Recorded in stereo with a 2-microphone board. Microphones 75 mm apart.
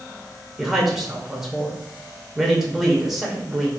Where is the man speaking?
5° right (ahead or behind), 0.8 m.